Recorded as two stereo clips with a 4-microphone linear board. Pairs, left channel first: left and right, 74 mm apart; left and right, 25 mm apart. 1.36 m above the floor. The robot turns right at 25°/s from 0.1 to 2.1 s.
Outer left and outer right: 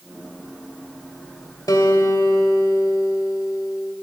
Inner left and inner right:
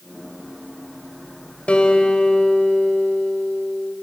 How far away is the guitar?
About 1.9 m.